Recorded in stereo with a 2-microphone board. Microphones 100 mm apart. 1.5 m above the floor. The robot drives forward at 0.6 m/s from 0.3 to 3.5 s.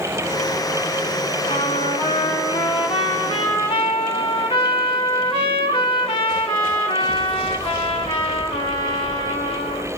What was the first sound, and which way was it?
A trumpet, 80° left.